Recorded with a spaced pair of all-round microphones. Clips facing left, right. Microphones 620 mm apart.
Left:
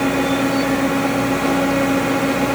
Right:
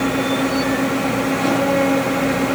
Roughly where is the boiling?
I don't hear boiling.